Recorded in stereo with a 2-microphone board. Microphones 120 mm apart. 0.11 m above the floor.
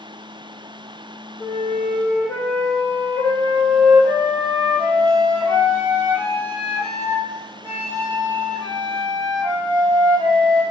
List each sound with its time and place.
1.4 s a flute: 5° left (ahead or behind), 1.7 m